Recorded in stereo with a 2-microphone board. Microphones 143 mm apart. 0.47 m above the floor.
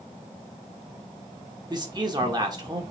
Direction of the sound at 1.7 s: 30° right (ahead or behind).